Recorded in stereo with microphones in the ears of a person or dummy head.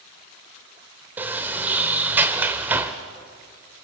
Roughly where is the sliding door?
Centre.